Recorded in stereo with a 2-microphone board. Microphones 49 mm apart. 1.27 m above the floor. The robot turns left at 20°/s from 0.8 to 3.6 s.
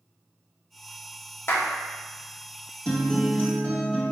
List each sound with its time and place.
1.5 s a clap: 55° left (ahead or behind), 0.6 m; by 1.7 s 50° left (ahead or behind), 0.6 m
2.9 s a guitar: 20° left (ahead or behind), 1.4 m; by 4.1 s 35° left (ahead or behind), 1.4 m